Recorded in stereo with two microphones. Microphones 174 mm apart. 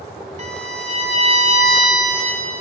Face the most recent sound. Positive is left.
turn(degrees=-45)  # may be behind; listen again after turning